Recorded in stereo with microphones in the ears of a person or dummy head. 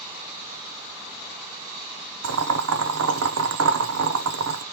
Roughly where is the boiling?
Right.